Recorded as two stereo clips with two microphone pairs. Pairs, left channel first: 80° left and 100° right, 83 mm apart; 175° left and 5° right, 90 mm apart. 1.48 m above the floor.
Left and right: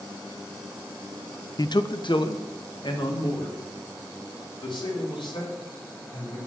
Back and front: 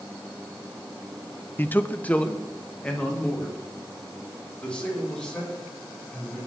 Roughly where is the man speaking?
Left.